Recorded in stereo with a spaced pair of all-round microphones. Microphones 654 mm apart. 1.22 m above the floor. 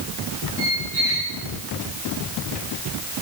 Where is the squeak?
70° left (ahead or behind), 5.5 m.